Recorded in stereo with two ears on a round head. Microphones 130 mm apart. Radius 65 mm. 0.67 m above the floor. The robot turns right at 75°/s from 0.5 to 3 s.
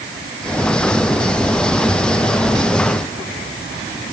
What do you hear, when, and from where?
Only background noise.